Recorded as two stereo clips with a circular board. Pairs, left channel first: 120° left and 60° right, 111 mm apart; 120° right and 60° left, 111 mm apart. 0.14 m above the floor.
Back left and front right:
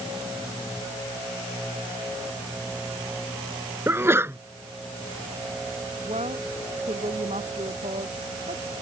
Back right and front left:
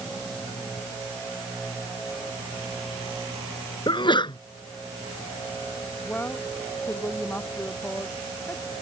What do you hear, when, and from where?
3.9 s a sneeze: 120° right
6.0 s a woman speaking: 45° right